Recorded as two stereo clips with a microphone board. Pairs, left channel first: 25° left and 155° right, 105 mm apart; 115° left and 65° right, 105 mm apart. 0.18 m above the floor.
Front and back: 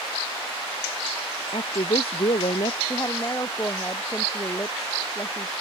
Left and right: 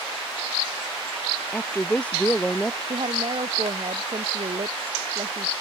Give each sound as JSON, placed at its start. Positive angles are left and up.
{"t": 1.5, "sound": "a woman speaking", "azimuth_deg": 35}
{"t": 2.9, "sound": "a woman speaking", "azimuth_deg": -35}